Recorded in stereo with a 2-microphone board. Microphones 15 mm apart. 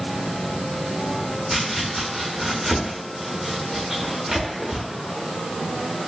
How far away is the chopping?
About 0.9 m.